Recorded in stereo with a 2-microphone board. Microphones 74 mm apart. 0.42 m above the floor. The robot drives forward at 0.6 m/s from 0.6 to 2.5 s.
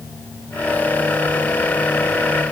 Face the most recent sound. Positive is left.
No sound to turn to.